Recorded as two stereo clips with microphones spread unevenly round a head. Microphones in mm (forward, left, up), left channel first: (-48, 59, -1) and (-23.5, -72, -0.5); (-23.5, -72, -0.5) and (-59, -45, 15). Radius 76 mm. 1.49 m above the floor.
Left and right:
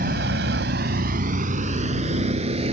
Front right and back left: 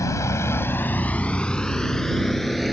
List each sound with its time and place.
0.0 s a vehicle: 40° right; by 2.7 s 125° right